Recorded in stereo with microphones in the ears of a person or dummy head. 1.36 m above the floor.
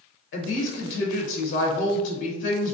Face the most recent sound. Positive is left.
turn(degrees=60)  # may be behind; listen again after turning